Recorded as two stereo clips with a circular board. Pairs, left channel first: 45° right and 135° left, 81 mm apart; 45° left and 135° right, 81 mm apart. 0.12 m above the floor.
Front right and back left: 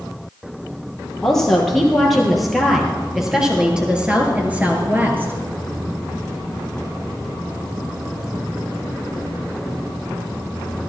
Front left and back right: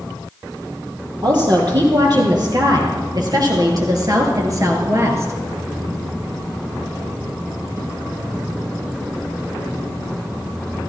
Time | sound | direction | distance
1.2 | a woman speaking | 130° right | 4 m